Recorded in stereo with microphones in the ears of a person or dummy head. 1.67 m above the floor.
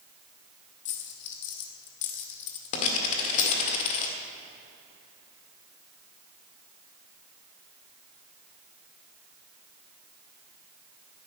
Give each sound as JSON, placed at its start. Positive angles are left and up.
{"t": 0.8, "sound": "a dropped coin", "side_deg": 40, "distance_m": 1.8}